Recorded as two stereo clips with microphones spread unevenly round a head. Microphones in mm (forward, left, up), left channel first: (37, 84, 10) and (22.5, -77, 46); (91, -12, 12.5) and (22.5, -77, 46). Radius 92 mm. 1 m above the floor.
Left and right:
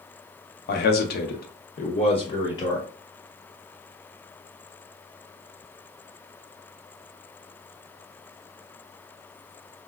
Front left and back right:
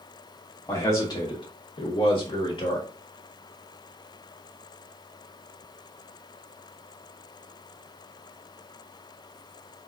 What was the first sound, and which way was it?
A man speaking, 105° left.